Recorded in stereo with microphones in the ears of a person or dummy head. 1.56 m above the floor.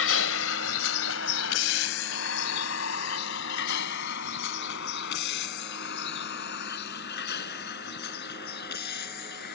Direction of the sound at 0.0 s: 80° left.